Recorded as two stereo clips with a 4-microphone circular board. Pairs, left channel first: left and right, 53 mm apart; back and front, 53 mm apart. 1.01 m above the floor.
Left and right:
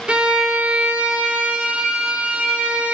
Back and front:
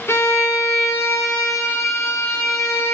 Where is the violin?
155° right, 0.9 m.